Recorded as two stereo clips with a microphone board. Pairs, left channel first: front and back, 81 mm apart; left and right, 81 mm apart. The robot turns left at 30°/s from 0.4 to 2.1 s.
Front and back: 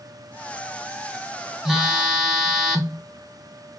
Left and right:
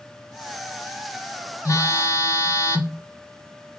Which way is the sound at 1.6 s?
100° left.